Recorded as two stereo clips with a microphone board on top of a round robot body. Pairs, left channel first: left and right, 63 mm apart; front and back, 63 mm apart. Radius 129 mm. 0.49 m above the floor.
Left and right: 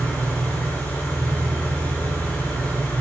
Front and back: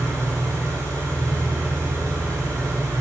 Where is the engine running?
150° left, 9.5 m.